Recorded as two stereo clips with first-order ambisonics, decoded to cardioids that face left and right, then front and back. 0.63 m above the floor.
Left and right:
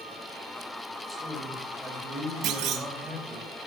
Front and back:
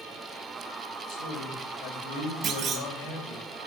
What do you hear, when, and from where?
1.1 s a man speaking: straight ahead, 3.5 m
2.4 s a clunk: 125° right, 2 m